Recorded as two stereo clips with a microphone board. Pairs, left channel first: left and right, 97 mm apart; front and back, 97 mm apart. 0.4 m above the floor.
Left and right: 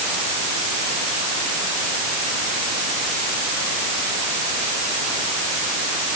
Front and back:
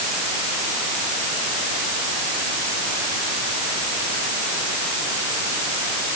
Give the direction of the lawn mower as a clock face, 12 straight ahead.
No lawn mower in this recording.